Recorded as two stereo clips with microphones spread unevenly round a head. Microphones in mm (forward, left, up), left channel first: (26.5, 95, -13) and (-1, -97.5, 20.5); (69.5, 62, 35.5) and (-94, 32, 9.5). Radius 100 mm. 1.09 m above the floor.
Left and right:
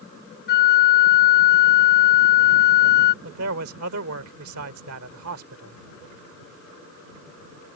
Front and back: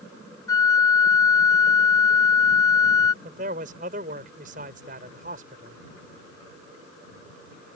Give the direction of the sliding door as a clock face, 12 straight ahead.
No sliding door in this recording.